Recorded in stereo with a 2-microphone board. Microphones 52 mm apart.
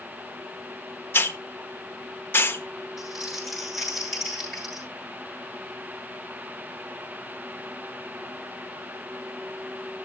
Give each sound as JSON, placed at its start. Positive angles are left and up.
{"t": 1.1, "sound": "a hiss", "side_deg": 45, "distance_m": 1.2}
{"t": 3.0, "sound": "crumpling", "side_deg": 0, "distance_m": 8.5}